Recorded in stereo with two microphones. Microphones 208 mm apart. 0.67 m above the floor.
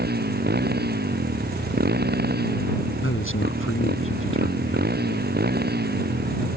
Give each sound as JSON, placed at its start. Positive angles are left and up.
{"t": 0.0, "sound": "a motorcycle", "side_deg": -50}
{"t": 3.0, "sound": "a man speaking", "side_deg": 80}